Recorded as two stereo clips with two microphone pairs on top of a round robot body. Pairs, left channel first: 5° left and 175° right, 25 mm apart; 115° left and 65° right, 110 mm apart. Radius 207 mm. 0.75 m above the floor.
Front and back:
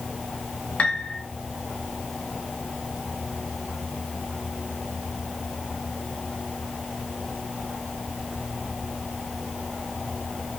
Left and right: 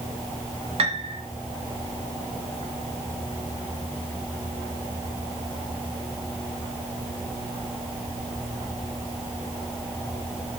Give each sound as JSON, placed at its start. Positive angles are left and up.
{"t": 0.8, "sound": "a piano", "azimuth_deg": -25, "distance_m": 1.8}